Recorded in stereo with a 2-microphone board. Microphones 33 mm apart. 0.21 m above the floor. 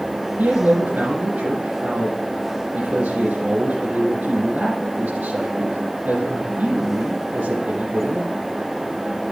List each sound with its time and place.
0.4 s a man speaking: 70° right (ahead or behind), 4.5 m